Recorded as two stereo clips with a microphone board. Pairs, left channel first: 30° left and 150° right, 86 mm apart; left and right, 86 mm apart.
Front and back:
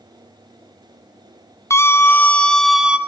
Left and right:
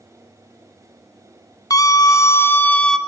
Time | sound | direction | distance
1.7 | a scream | 75° left | 2 m